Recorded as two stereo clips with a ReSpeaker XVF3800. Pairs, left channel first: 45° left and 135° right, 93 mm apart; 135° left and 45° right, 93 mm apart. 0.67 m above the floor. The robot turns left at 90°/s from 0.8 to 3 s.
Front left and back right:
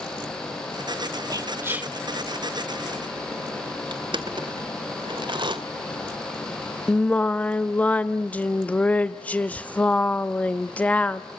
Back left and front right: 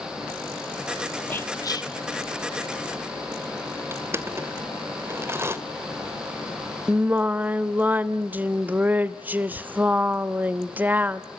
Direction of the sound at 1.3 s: 160° right.